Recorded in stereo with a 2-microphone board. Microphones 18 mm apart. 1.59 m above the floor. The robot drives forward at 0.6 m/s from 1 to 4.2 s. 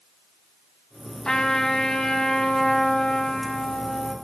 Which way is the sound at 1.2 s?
45° left (ahead or behind).